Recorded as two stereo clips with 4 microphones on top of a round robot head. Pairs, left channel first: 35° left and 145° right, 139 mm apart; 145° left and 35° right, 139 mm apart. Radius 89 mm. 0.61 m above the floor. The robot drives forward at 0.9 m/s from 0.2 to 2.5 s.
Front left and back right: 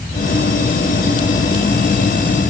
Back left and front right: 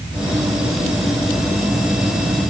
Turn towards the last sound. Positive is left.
No sound to turn to.